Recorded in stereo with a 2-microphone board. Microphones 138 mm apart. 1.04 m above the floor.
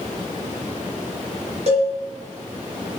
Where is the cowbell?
50° right (ahead or behind), 3.5 m.